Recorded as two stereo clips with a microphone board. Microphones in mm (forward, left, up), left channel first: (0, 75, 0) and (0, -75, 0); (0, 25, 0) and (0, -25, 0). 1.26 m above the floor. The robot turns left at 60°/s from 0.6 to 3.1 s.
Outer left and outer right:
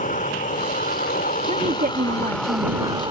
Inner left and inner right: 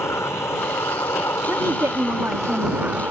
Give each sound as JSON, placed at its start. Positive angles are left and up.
{"t": 0.0, "sound": "an insect", "azimuth_deg": 115}
{"t": 1.5, "sound": "a woman speaking", "azimuth_deg": -50}